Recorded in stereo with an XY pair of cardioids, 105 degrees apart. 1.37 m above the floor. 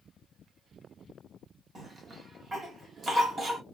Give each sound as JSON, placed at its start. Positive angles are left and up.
{"t": 1.8, "sound": "a cough", "azimuth_deg": -35, "distance_m": 2.5}